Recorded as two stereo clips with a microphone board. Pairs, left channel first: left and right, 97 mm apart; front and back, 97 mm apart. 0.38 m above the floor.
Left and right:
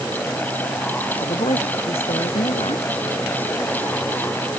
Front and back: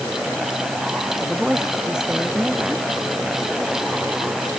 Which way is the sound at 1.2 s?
95° left.